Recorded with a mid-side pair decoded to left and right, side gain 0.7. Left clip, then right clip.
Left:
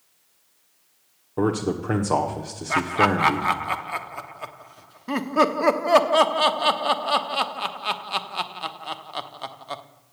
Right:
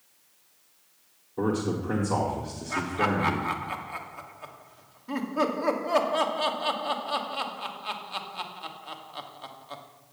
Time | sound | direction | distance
1.4 | a man speaking | 55° left | 1.3 m
2.7 | laughter | 60° left | 0.9 m